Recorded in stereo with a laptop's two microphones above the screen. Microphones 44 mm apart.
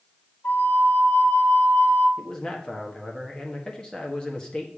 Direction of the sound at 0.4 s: 60° left (ahead or behind).